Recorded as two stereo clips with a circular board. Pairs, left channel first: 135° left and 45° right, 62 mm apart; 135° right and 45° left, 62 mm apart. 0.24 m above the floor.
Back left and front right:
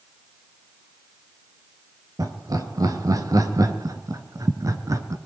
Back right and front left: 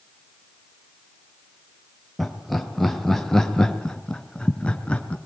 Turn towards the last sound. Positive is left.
turn(degrees=-65)